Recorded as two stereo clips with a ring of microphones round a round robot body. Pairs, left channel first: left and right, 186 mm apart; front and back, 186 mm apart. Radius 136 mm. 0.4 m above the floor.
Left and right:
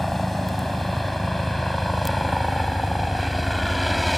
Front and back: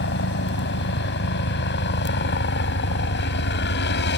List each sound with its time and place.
0.0 s a helicopter: straight ahead